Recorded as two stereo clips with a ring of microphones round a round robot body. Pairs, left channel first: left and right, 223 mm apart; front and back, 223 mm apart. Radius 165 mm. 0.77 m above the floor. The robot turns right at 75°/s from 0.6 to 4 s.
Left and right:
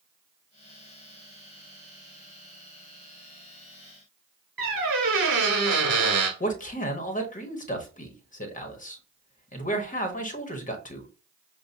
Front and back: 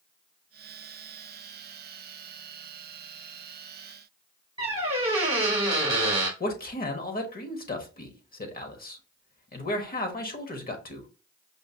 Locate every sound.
4.6 s a squeak: 115° right, 0.9 m
6.4 s a man speaking: 40° left, 1.0 m